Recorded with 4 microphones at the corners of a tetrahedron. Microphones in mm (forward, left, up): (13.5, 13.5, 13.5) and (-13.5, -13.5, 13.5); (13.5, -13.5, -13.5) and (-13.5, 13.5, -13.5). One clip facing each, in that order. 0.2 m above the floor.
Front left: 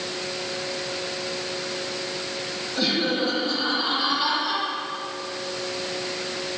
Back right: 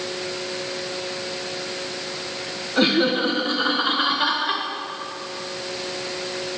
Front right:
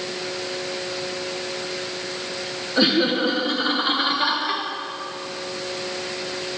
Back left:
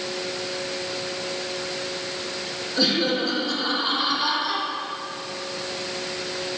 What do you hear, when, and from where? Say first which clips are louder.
2.8 s laughter: back right 5 dB, front right 3 dB; 100° right, 2 m; by 4.6 s 90° right, 3 m